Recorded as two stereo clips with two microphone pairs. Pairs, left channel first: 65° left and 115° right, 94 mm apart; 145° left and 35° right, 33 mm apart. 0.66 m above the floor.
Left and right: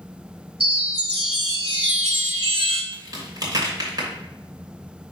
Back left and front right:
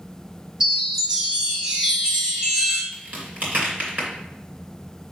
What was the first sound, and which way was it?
A chime, 105° right.